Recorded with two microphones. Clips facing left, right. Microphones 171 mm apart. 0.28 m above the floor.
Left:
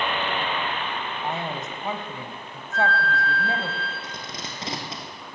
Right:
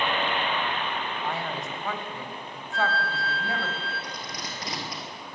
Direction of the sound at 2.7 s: 30° right (ahead or behind).